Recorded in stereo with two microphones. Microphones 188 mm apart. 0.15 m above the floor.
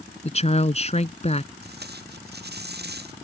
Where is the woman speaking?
35° left (ahead or behind).